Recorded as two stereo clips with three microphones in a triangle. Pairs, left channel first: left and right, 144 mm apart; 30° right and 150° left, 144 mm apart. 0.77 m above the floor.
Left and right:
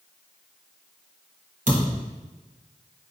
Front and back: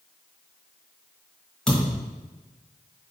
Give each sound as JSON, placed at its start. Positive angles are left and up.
{"t": 1.7, "sound": "a thud", "azimuth_deg": -115, "distance_m": 1.5}